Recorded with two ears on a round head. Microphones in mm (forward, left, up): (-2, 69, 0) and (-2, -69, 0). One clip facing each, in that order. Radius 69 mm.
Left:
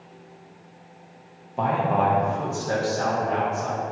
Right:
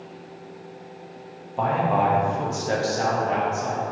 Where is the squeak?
I don't hear a squeak.